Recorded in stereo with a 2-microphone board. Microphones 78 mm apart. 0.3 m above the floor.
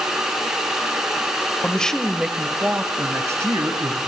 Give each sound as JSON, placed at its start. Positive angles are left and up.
{"t": 1.6, "sound": "a man speaking", "side_deg": 15, "distance_m": 1.0}